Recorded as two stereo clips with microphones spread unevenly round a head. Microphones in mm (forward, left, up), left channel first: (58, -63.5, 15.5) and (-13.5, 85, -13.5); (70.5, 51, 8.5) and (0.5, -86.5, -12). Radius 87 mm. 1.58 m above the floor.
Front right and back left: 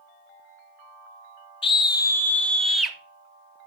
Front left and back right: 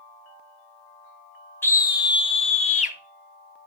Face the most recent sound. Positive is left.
turn(degrees=25)